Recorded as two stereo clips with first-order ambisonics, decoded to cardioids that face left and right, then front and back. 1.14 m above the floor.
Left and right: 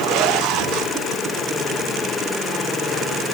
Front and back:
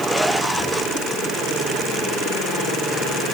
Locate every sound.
Only background noise.